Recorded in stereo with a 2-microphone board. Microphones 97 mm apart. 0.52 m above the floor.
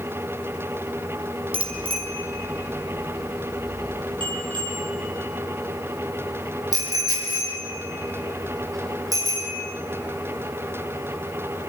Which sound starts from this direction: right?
A bicycle bell, at 1.5 s.